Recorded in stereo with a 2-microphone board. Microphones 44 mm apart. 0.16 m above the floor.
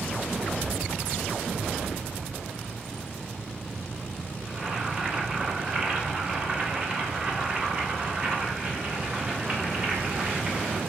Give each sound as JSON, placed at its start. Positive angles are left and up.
{"t": 4.5, "sound": "boiling", "side_deg": -35, "distance_m": 2.5}